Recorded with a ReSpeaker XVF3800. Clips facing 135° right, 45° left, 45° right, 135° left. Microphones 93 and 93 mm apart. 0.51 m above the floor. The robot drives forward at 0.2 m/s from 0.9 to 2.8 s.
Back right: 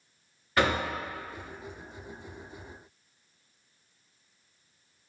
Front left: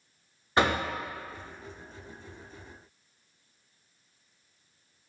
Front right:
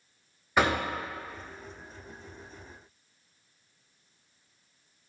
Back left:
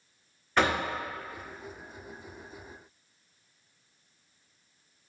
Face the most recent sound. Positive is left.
turn(degrees=140)